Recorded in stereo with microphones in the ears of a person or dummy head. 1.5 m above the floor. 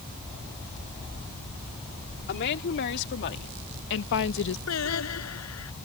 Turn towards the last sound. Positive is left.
turn(degrees=75)  # may be behind; listen again after turning